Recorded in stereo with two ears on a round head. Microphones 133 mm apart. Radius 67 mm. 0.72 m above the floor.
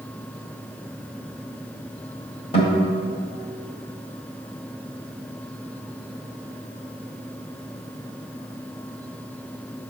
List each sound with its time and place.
2.5 s a guitar: 45° left (ahead or behind), 1.8 m